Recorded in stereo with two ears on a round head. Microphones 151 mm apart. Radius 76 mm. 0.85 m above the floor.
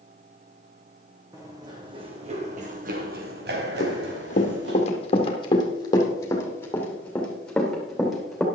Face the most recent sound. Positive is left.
turn(degrees=-5)  # may be behind; listen again after turning